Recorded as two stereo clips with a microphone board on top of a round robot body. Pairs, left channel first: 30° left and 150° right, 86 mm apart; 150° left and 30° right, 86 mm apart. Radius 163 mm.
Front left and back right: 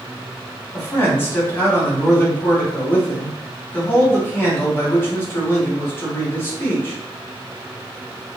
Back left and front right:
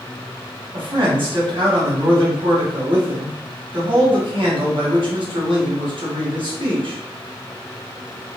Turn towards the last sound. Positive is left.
turn(degrees=-30)